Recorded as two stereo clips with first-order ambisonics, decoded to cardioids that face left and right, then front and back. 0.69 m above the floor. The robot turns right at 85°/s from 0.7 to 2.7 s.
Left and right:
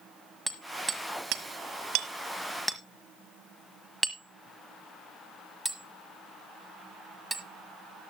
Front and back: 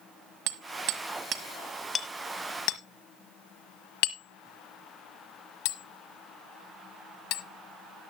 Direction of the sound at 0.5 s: Straight behind.